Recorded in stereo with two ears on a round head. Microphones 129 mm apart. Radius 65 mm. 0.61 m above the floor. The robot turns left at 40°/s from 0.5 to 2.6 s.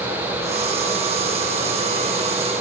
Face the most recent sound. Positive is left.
No sound to turn to.